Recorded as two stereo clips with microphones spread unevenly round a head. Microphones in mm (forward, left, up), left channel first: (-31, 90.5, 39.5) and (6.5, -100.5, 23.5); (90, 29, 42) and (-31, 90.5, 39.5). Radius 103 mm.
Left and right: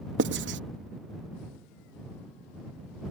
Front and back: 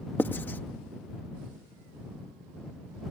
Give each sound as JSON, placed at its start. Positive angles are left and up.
{"t": 0.2, "sound": "writing", "azimuth_deg": -105}